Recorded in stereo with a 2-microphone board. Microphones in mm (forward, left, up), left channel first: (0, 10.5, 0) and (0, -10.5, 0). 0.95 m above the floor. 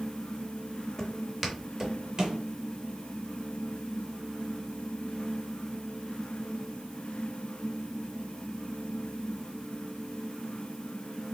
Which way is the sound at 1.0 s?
10° left (ahead or behind).